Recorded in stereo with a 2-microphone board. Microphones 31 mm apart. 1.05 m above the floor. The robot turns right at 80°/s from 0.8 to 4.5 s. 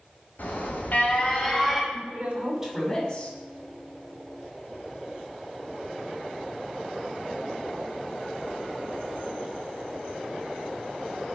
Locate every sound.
0.4 s an alarm: 105° left, 4.5 m; by 1.8 s 170° right, 4.5 m
1.9 s a woman speaking: 75° right, 6 m; by 3.3 s 40° left, 6 m